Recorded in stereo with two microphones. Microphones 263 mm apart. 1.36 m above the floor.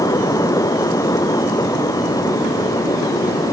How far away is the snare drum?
I don't hear a snare drum.